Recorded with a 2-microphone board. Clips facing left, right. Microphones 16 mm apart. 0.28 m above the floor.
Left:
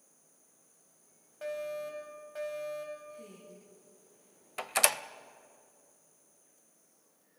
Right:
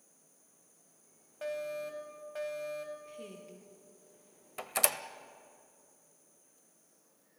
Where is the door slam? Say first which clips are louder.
Left 4 dB; 20° left (ahead or behind), 0.6 m.